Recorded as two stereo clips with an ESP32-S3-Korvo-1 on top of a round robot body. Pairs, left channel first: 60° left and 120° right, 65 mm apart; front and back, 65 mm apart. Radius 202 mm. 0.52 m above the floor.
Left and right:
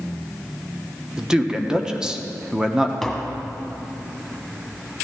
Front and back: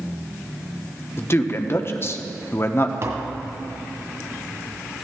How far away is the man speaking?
About 1.2 m.